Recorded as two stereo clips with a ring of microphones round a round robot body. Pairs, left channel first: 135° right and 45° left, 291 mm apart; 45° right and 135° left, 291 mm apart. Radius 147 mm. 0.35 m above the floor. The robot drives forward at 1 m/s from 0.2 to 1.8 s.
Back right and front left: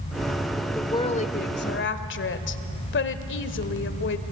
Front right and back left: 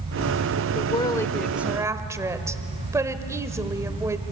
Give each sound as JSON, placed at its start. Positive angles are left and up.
{"t": 0.8, "sound": "a woman speaking", "azimuth_deg": -65, "distance_m": 1.3}